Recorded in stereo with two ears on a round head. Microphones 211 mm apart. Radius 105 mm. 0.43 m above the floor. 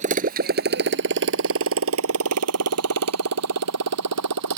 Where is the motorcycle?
35° right (ahead or behind); by 4.6 s 80° right.